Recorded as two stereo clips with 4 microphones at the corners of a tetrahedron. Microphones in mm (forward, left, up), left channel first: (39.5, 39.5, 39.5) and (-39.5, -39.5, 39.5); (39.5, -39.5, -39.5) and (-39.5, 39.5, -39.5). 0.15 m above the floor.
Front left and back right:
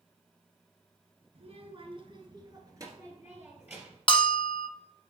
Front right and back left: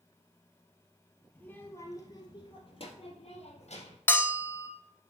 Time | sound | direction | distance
1.4 | a child speaking | 120° right | 1.7 m
4.1 | a bell | 20° left | 0.6 m